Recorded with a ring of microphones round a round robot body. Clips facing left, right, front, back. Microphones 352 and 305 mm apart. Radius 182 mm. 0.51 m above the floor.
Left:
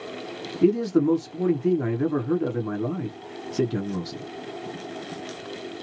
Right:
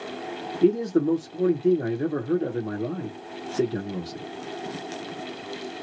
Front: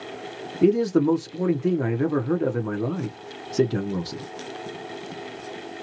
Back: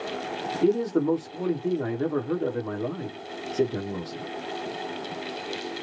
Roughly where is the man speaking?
Ahead left.